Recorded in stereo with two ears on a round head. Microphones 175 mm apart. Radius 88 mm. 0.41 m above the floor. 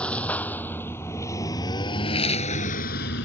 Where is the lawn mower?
5° left (ahead or behind); by 3.2 s 65° left (ahead or behind).